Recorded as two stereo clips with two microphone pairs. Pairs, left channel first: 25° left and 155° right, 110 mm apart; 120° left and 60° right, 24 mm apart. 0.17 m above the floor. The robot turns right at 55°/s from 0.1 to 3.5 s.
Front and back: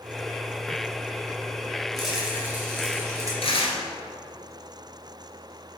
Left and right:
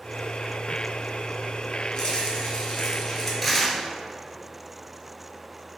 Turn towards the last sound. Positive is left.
turn(degrees=40)